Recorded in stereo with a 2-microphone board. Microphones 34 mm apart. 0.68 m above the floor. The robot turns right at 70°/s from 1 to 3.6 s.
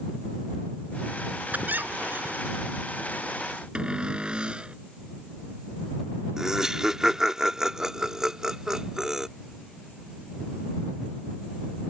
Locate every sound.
1.5 s a squeak: 120° right; by 2.6 s 50° right
3.8 s a cupboard door: 30° right (ahead or behind)
6.4 s laughter: 20° right (ahead or behind)